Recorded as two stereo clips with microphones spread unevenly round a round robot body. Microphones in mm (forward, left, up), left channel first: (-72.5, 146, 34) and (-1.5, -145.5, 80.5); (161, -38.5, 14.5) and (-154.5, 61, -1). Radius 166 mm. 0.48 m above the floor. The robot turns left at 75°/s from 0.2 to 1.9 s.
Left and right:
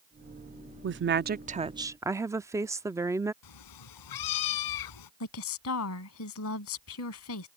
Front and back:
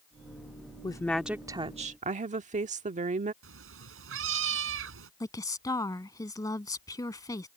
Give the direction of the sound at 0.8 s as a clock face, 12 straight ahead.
3 o'clock.